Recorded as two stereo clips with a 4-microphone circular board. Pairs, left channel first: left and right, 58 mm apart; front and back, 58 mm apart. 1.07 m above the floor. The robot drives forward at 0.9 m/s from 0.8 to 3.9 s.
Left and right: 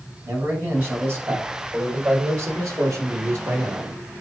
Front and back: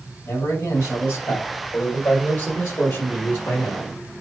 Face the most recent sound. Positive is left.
turn(degrees=-60)